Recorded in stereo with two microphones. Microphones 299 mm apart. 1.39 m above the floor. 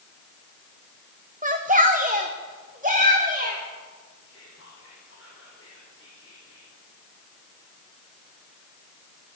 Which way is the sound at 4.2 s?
50° left (ahead or behind).